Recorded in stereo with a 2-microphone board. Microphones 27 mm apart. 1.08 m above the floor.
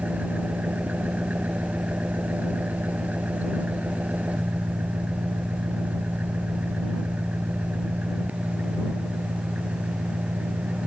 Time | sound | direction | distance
0.0 | an engine running | 85° right | ?